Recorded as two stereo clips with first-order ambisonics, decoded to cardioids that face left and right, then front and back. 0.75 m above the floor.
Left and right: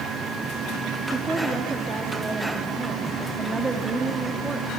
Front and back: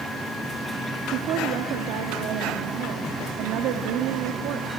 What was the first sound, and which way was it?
A woman speaking, 170° right.